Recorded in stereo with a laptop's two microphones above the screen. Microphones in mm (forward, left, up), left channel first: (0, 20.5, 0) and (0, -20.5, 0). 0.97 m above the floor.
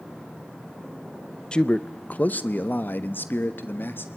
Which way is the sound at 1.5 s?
25° left (ahead or behind).